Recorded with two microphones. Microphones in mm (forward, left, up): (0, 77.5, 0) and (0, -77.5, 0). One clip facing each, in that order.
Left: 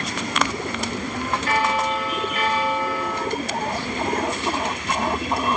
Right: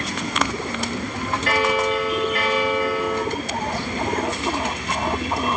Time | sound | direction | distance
1.5 | a bell | 75° right (ahead or behind) | 4.5 m